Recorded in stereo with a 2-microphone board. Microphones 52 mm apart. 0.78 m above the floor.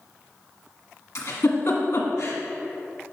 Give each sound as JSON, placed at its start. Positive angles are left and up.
{"t": 1.1, "sound": "a giggle", "side_deg": 70, "distance_m": 1.5}